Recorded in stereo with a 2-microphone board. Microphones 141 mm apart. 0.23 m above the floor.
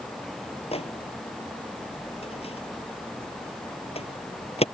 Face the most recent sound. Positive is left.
turn(degrees=45)  # may be behind; listen again after turning